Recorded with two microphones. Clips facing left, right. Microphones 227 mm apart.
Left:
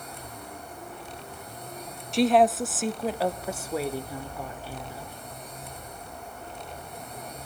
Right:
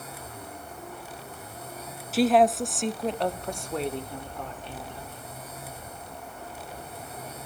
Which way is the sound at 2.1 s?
5° right (ahead or behind).